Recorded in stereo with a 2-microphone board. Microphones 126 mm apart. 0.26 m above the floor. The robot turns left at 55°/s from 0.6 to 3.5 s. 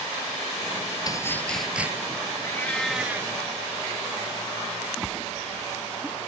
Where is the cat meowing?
25° left; by 3.3 s 25° right.